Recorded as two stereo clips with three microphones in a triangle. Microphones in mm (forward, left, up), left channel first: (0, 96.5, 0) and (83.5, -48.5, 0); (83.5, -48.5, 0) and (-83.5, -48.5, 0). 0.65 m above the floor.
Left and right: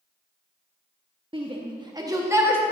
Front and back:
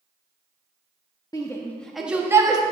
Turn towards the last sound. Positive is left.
turn(degrees=-130)